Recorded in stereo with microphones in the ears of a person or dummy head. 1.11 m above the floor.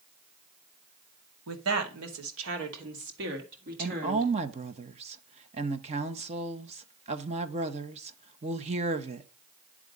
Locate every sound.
1.5 s a woman speaking: 80° right, 2 m; by 4.3 s 45° right (ahead or behind), 3 m
3.8 s a woman speaking: 30° right (ahead or behind), 0.8 m